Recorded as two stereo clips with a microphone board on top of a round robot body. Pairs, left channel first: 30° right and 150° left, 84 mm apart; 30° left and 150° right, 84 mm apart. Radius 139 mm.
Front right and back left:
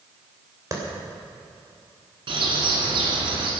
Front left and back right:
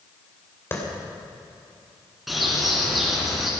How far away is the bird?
About 3 m.